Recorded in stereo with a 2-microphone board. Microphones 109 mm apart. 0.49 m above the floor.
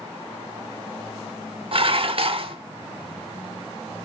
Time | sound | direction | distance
1.7 | dishes clattering | 55° right (ahead or behind) | 0.9 m